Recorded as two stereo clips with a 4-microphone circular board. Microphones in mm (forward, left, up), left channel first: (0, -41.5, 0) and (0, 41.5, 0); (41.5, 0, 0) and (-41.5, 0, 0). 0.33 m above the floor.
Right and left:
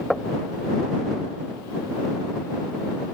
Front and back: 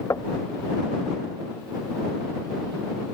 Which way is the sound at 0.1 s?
Straight ahead.